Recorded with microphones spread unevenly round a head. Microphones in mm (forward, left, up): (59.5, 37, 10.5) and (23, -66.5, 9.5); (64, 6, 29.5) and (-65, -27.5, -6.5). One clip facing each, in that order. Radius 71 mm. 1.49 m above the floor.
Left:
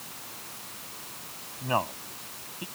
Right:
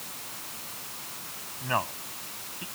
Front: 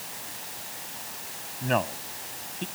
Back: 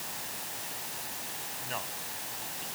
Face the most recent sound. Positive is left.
turn(degrees=5)